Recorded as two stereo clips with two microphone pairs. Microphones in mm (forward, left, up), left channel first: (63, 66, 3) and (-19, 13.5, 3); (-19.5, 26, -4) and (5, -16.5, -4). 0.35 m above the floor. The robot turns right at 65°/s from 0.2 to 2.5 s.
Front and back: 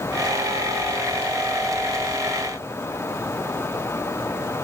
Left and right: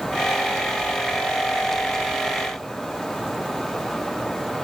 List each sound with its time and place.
Only background noise.